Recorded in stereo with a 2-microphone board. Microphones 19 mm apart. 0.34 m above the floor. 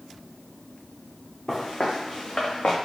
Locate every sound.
1.5 s footsteps: 40° left (ahead or behind), 1.2 m; by 2.8 s 75° left (ahead or behind), 1.2 m